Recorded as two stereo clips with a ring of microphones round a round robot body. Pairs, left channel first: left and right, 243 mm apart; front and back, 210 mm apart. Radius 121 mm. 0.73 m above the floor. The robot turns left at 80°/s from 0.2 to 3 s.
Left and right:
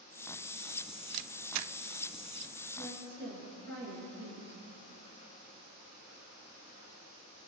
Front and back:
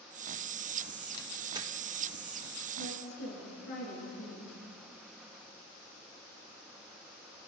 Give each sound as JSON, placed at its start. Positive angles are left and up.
{"t": 1.1, "sound": "a camera shutter", "azimuth_deg": -70, "distance_m": 0.5}
{"t": 2.8, "sound": "a woman speaking", "azimuth_deg": 30, "distance_m": 9.5}